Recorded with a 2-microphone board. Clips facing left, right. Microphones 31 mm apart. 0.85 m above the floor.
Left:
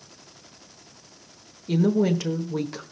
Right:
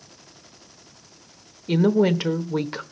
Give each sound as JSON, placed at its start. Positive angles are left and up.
{"t": 1.7, "sound": "a woman speaking", "side_deg": -30, "distance_m": 0.9}